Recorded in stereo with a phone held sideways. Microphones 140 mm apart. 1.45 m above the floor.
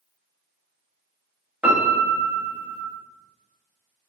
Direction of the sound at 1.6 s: 10° right (ahead or behind).